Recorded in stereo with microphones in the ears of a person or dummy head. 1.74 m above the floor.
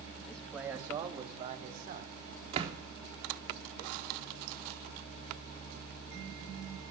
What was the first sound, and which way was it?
A man speaking, 5° left (ahead or behind).